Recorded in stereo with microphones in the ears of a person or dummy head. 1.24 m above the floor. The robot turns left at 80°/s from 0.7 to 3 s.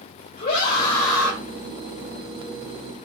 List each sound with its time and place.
0.4 s a scream: 40° left, 6 m; by 1.4 s 15° right, 6 m